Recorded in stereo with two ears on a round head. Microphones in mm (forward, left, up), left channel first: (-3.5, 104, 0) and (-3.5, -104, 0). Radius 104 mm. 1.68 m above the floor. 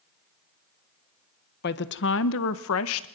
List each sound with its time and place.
1.6 s a woman speaking: 45° left (ahead or behind), 1.1 m; by 3.1 s 65° left (ahead or behind), 1.4 m